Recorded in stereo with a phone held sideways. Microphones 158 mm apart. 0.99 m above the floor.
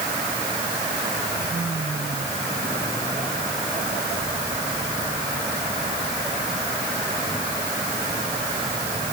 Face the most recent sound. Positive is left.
No sound to turn to.